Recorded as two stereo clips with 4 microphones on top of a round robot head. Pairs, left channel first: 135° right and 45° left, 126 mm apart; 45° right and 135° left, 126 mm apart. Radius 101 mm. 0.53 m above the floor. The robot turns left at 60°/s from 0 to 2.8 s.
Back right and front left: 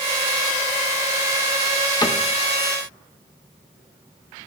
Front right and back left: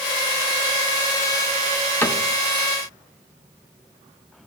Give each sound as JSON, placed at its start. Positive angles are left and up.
{"t": 2.0, "sound": "a cupboard door", "azimuth_deg": -110, "distance_m": 1.4}